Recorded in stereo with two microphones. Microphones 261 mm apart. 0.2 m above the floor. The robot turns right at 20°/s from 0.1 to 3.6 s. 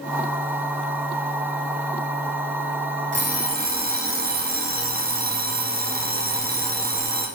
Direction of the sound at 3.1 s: 45° right (ahead or behind).